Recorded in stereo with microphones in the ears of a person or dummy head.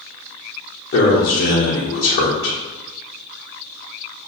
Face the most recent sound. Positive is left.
turn(degrees=60)  # may be behind; listen again after turning